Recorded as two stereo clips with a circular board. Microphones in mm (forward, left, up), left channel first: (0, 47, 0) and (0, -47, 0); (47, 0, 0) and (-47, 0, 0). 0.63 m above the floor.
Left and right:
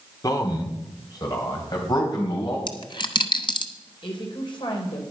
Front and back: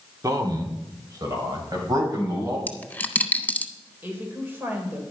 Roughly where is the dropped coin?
Left.